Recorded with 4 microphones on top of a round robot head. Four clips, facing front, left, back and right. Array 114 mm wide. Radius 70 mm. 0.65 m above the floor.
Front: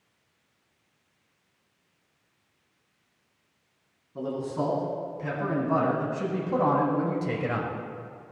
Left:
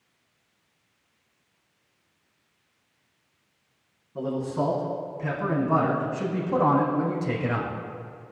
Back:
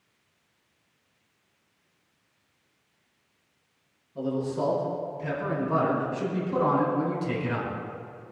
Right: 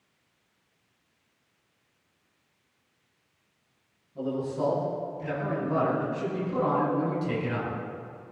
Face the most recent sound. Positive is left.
turn(degrees=45)